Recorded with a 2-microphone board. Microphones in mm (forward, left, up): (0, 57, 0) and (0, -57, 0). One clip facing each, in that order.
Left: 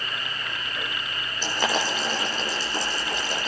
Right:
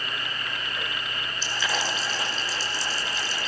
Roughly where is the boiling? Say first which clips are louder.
Left 4 dB; left.